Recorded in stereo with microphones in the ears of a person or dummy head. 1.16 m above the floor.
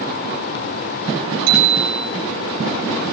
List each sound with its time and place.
1.5 s a bicycle bell: 55° right (ahead or behind), 6.5 m